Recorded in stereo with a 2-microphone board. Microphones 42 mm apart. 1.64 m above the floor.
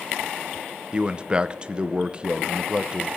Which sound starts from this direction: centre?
A man speaking, at 0.9 s.